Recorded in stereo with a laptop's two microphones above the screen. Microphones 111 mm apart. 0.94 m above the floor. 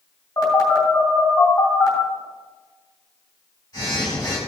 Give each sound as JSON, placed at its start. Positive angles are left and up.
{"t": 0.4, "sound": "a phone buzzing", "side_deg": 35, "distance_m": 3.0}